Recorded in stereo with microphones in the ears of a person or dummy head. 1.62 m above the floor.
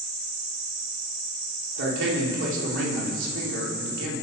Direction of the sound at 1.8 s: 75° right (ahead or behind).